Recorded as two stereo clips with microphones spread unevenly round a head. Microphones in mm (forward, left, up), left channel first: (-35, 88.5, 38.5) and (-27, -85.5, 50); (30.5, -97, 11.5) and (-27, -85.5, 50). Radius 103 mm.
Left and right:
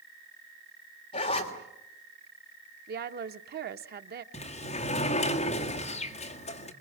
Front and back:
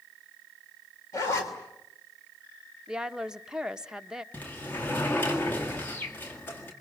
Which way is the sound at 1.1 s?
30° left.